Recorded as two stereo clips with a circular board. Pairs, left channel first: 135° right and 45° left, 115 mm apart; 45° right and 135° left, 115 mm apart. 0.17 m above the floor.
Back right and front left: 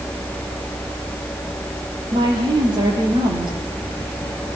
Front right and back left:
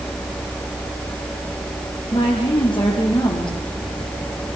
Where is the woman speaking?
Straight ahead, 6.5 m.